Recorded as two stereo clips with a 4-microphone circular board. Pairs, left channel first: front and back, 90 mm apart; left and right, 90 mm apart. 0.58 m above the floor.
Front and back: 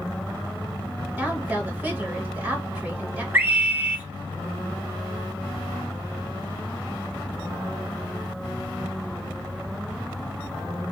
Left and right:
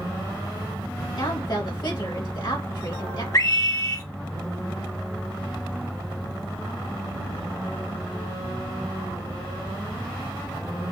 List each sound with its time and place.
1.2 s a woman speaking: 110° left, 2.5 m
3.3 s a scream: 120° left, 1.3 m